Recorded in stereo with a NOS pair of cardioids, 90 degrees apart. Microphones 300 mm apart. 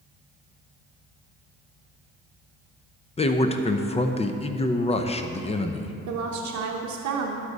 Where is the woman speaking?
70° right, 0.9 m.